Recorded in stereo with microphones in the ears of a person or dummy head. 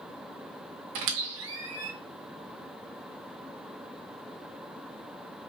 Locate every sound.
0.9 s a squeak: 60° right (ahead or behind), 1.1 m